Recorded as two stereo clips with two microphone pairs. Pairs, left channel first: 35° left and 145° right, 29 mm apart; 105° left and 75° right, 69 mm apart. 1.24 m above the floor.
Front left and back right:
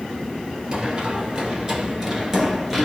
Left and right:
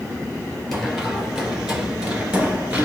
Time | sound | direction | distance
0.7 | running footsteps | 170° right | 1.4 m